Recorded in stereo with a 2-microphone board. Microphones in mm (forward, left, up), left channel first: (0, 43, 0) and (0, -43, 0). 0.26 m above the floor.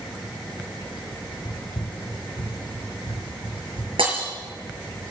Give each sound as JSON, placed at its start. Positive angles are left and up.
{"t": 1.4, "sound": "running footsteps", "side_deg": 50, "distance_m": 0.6}
{"t": 4.0, "sound": "breaking glass", "side_deg": -80, "distance_m": 5.0}